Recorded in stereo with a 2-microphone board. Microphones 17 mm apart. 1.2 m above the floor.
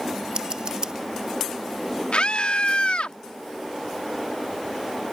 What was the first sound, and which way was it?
Scissors, 50° right (ahead or behind).